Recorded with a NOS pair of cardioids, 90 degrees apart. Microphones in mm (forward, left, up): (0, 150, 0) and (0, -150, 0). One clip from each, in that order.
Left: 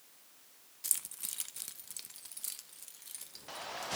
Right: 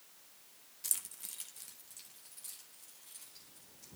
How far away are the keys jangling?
About 0.6 m.